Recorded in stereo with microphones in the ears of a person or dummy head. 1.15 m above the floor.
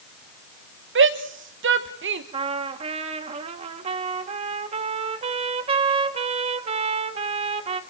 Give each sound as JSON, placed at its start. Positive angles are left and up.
{"t": 0.9, "sound": "a shout", "side_deg": -55, "distance_m": 1.3}
{"t": 2.3, "sound": "a trumpet", "side_deg": -35, "distance_m": 1.2}